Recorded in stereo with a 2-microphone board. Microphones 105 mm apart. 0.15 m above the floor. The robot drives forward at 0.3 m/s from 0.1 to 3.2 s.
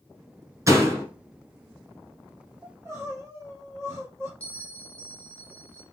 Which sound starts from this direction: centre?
A bell, at 4.4 s.